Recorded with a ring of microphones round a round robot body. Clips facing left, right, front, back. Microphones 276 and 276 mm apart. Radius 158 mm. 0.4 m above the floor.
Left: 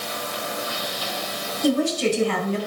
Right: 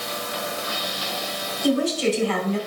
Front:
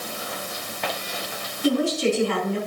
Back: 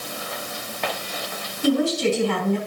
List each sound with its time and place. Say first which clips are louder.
1.6 s a woman speaking: even, back 1 dB; 130° left, 3.5 m